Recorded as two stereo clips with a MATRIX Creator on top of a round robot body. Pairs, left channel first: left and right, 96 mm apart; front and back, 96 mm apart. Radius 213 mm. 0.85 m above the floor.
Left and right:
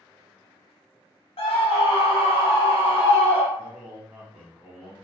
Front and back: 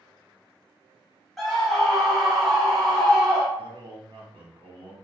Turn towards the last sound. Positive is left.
turn(degrees=-165)